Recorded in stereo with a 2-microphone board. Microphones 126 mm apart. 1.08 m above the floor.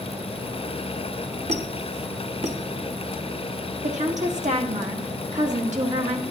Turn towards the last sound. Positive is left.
turn(degrees=-70)  # may be behind; listen again after turning